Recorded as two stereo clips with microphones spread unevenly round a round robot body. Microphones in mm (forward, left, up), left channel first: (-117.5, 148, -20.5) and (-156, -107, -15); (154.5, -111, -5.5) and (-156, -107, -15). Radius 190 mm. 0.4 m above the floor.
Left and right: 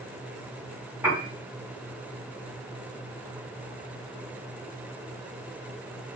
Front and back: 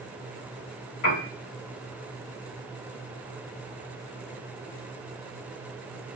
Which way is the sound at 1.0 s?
15° right.